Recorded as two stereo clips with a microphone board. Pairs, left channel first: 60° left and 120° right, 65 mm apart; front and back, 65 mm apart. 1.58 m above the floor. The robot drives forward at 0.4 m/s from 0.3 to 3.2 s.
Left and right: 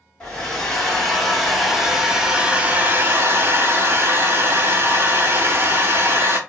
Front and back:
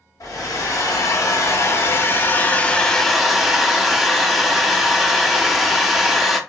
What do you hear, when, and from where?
0.2 s a hair dryer: 20° right, 1.3 m; by 6.4 s 95° right, 0.6 m